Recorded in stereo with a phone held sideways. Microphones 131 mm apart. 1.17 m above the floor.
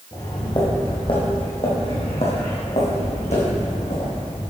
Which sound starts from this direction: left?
Footsteps, at 0.1 s.